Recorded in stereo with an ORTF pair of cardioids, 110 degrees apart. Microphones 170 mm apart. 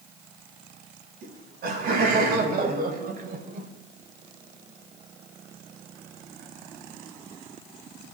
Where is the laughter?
70° right, 8 m; by 3.7 s 50° right, 4.5 m.